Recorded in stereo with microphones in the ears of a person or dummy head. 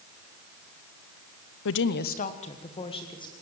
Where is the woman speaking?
70° left (ahead or behind), 0.8 m; by 3.3 s 25° left (ahead or behind), 2.5 m.